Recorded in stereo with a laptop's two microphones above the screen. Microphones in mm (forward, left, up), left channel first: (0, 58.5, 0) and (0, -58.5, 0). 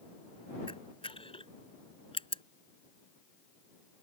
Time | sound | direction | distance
0.7 | a camera shutter | 50° left (ahead or behind) | ?